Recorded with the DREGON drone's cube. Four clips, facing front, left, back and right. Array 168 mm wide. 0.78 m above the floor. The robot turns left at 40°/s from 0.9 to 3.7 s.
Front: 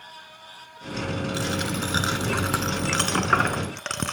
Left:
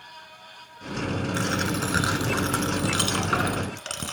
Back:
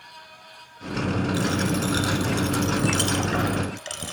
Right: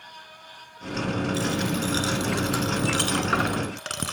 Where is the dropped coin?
80° left, 1.3 m; by 4.1 s 15° right, 1.3 m.